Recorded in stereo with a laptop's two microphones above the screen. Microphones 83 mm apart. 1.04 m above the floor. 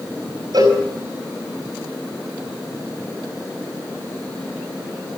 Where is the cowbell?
55° right (ahead or behind), 5 m.